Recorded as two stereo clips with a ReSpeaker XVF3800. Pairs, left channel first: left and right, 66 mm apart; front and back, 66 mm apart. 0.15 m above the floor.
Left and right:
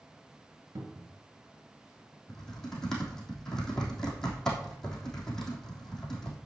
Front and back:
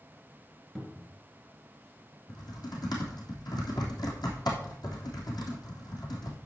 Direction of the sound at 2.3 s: 10° left.